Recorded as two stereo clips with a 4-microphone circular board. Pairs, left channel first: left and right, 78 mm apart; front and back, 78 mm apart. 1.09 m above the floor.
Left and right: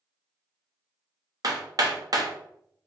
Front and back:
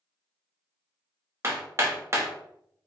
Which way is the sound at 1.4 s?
125° right.